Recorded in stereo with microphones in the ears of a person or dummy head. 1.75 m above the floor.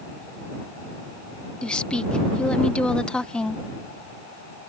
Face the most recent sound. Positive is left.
turn(degrees=5)  # may be behind; listen again after turning